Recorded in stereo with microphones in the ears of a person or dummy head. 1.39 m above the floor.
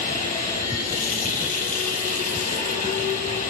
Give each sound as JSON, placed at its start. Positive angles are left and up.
{"t": 0.0, "sound": "running water", "side_deg": 40, "distance_m": 4.5}